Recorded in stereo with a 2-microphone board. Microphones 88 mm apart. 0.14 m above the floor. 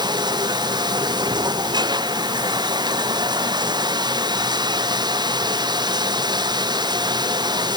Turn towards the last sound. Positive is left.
turn(degrees=-55)  # may be behind; listen again after turning